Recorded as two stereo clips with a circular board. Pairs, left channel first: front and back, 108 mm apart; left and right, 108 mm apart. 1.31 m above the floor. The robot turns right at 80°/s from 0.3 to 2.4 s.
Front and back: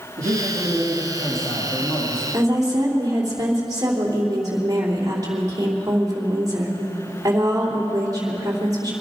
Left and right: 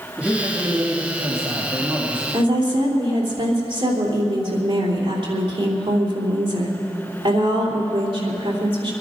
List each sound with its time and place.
0.2 s a man speaking: 170° right, 2.5 m; by 2.2 s 15° right, 2.5 m
2.3 s a woman speaking: 125° right, 3 m; by 8.9 s 120° right, 3 m